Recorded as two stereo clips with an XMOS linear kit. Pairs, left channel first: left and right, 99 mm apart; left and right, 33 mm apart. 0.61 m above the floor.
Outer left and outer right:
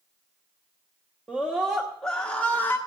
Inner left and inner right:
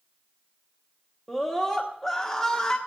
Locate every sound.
1.3 s a scream: 15° right (ahead or behind), 1.3 m; by 2.8 s 20° left (ahead or behind), 1.2 m